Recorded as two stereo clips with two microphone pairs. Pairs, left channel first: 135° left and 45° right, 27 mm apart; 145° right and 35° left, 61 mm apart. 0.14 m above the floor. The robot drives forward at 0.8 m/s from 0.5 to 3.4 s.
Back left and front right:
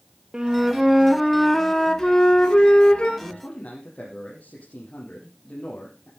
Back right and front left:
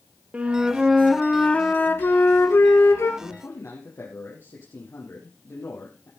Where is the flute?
10° right, 1.0 m; by 3.1 s 175° right, 1.8 m.